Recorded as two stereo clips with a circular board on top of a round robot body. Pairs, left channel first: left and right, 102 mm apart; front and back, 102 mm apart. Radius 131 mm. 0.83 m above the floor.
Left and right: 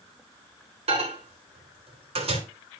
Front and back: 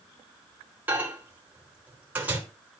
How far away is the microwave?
About 3 m.